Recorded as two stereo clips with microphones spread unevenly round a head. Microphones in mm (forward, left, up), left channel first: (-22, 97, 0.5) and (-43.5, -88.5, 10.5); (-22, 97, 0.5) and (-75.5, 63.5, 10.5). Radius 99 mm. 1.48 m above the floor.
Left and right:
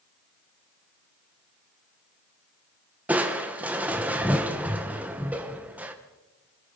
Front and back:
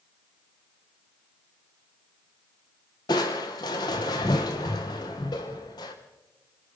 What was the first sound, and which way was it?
Crushing, 15° right.